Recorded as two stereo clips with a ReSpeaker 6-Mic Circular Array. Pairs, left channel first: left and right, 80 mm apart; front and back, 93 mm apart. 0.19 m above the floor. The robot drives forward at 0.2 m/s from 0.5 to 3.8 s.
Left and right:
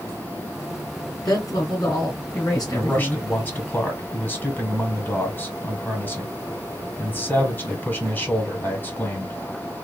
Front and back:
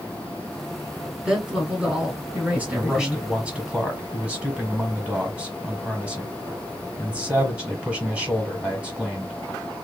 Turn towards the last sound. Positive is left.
turn(degrees=125)